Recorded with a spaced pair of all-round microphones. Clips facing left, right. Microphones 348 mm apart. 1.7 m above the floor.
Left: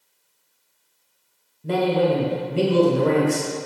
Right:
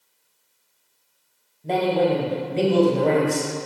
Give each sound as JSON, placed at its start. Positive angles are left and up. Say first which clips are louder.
{"t": 1.6, "sound": "a man speaking", "louder": "left 1 dB", "side_deg": 20, "distance_m": 0.7}